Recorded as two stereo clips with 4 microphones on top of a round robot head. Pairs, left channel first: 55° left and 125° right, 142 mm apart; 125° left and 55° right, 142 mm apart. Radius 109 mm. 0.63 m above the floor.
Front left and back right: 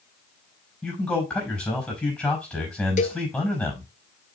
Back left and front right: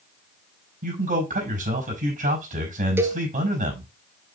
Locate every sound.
0.8 s a man speaking: 30° right, 5 m
3.0 s a cowbell: 20° left, 0.9 m